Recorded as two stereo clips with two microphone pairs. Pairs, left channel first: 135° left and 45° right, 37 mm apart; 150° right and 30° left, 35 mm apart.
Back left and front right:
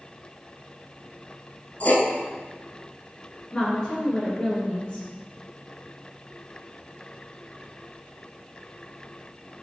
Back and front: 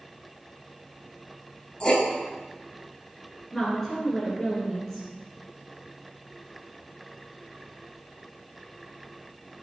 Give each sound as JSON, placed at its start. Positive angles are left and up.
{"t": 1.8, "sound": "writing", "azimuth_deg": 145, "distance_m": 0.6}
{"t": 3.5, "sound": "a woman speaking", "azimuth_deg": 130, "distance_m": 1.6}